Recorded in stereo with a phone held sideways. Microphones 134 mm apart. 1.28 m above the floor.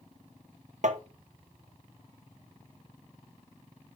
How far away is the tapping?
About 0.8 m.